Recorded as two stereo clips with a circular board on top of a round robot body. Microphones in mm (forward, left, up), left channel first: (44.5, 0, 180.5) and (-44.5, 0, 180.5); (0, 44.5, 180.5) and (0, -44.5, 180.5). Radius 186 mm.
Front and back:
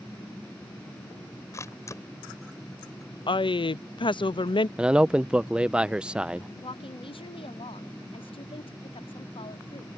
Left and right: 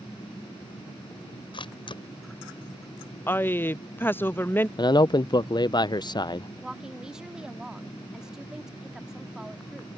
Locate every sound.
1.5 s a camera shutter: 60° left
3.3 s a woman speaking: 25° left
4.8 s a man speaking: 105° left
6.6 s a woman speaking: 5° right